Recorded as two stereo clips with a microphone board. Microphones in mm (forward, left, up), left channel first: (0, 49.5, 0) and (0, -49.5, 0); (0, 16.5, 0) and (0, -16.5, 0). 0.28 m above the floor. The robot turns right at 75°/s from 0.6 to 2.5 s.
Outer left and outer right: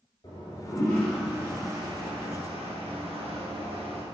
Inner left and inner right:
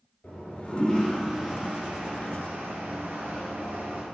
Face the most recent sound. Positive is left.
turn(degrees=-85)